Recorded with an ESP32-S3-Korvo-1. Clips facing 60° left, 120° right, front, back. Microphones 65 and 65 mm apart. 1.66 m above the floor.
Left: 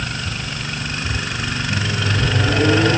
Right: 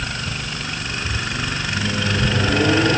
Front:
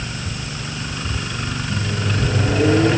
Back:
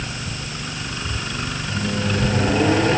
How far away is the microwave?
About 10 m.